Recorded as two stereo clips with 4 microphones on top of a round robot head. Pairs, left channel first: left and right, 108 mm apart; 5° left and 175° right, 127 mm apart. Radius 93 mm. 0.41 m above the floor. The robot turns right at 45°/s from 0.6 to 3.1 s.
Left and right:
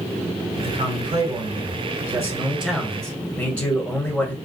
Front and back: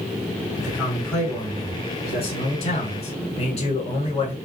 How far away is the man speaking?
About 1.6 m.